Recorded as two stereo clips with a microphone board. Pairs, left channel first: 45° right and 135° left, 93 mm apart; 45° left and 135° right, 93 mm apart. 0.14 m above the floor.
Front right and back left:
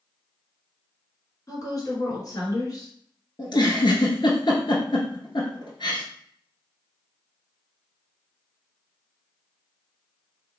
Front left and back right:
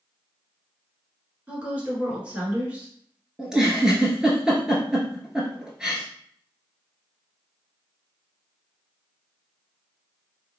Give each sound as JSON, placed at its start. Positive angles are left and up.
{"t": 1.5, "sound": "a woman speaking", "azimuth_deg": -65, "distance_m": 1.5}
{"t": 3.4, "sound": "a giggle", "azimuth_deg": -55, "distance_m": 0.8}